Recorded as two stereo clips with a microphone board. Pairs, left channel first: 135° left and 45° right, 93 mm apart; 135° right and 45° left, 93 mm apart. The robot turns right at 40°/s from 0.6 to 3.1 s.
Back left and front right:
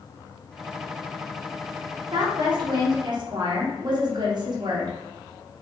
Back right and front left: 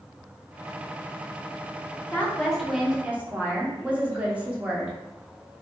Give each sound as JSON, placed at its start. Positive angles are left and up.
{"t": 2.1, "sound": "a woman speaking", "azimuth_deg": -65, "distance_m": 0.7}